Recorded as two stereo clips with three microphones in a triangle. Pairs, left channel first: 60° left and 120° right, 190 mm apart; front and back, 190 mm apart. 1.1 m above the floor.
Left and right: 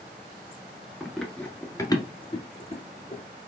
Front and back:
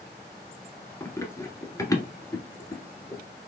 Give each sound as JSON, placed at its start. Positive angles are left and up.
{"t": 1.0, "sound": "running footsteps", "azimuth_deg": -40, "distance_m": 1.1}